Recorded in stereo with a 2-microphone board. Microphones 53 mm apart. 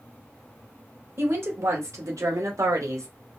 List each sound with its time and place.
1.2 s a woman speaking: 50° right (ahead or behind), 1.7 m; by 3.1 s 80° right, 1.6 m